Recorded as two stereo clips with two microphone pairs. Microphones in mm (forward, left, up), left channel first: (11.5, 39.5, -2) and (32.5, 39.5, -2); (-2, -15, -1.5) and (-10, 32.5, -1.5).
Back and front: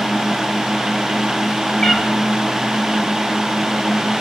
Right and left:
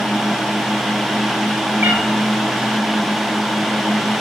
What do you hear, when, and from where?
1.8 s a cat meowing: 125° left, 1.1 m